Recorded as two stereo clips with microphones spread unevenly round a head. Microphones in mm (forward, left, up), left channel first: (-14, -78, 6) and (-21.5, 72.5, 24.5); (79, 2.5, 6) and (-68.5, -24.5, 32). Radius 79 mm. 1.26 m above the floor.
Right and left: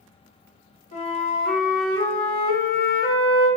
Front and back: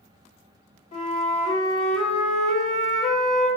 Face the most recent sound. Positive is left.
turn(degrees=-40)